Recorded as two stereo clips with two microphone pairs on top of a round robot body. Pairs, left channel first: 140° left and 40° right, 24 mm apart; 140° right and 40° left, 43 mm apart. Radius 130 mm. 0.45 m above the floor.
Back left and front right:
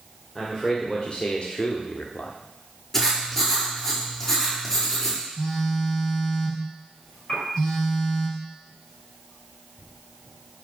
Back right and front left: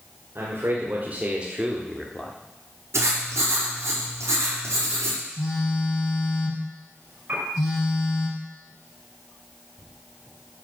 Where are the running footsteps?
I don't hear running footsteps.